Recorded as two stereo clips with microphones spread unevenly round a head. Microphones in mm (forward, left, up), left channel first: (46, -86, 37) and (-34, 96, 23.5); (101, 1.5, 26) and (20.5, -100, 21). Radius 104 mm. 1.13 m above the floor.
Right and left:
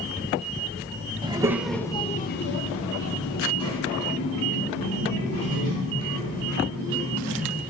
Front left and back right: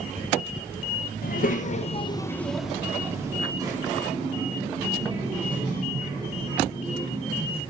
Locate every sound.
1.2 s a child speaking: 45° left, 0.6 m; by 7.6 s 80° right, 3.5 m